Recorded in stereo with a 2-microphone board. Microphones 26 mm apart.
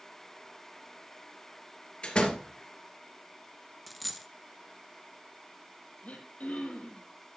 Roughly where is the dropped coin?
Centre.